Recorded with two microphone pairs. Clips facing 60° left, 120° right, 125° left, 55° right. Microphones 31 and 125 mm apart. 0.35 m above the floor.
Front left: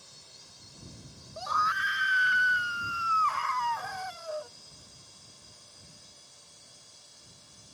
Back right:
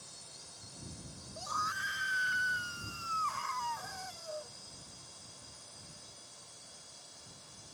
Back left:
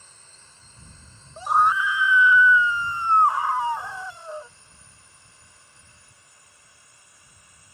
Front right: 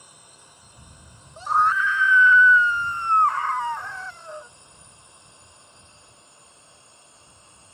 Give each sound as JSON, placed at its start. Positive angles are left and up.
{"t": 0.0, "sound": "a drone", "azimuth_deg": -5}
{"t": 1.4, "sound": "a scream", "azimuth_deg": 55}